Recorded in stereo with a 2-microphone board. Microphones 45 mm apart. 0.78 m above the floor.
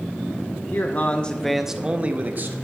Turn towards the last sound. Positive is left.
turn(degrees=-50)  # may be behind; listen again after turning